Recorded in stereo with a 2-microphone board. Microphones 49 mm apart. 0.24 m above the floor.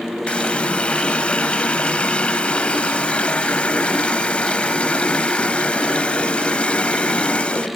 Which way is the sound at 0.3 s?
25° left (ahead or behind).